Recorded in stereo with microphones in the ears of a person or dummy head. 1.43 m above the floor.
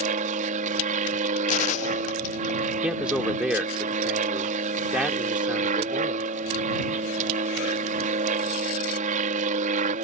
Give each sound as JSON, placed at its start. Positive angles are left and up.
{"t": 0.0, "sound": "an aircraft", "side_deg": -45}
{"t": 1.5, "sound": "a gunshot", "side_deg": 45}
{"t": 2.8, "sound": "a man speaking", "side_deg": -5}